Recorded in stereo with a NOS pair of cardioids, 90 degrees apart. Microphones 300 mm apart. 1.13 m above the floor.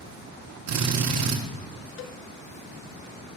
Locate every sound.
0.7 s a drill: 60° right, 1.9 m
2.0 s a cowbell: 45° left, 0.5 m